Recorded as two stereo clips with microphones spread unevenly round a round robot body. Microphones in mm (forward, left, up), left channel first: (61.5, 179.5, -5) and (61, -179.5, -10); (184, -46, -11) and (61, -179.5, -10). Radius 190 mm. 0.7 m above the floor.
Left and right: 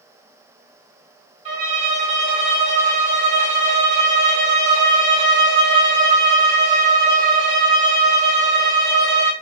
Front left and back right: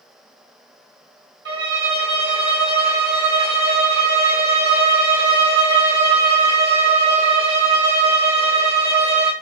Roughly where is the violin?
Behind.